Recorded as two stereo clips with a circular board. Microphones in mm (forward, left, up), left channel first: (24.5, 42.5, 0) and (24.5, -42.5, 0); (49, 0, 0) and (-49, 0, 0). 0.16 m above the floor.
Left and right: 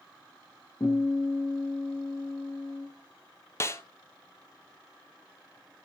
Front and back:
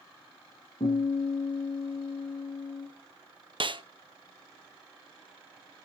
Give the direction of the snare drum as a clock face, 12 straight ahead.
7 o'clock.